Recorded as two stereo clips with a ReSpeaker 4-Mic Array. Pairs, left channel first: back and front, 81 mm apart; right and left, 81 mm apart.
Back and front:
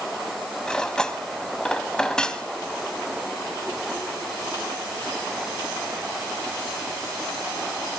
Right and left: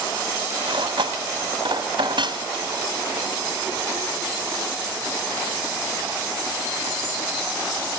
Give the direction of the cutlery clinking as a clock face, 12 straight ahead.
9 o'clock.